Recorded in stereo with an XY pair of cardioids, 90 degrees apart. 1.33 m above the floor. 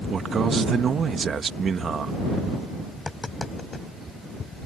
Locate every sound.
0.1 s a man speaking: 50° right
2.9 s tapping: 25° left